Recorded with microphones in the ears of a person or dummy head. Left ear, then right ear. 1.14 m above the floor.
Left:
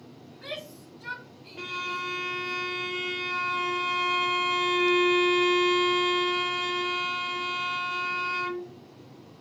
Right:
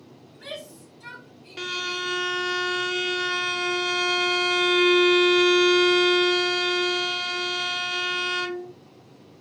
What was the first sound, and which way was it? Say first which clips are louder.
A shout: even; 40° right (ahead or behind).